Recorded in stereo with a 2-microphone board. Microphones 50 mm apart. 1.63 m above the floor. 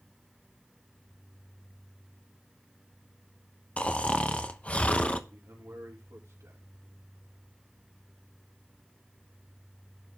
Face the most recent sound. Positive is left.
turn(degrees=-80)